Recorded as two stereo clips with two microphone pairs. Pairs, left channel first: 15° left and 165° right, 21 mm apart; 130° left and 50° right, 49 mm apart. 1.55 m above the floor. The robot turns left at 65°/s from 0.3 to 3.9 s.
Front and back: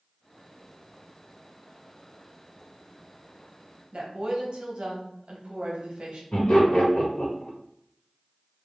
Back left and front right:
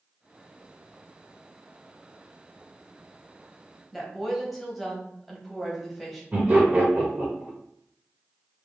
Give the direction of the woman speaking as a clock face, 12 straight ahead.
5 o'clock.